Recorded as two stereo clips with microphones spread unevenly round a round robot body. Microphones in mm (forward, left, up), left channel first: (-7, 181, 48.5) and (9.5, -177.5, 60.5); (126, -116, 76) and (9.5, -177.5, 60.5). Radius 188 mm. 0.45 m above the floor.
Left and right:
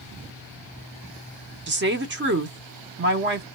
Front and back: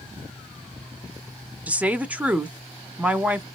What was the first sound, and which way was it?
A woman speaking, 100° right.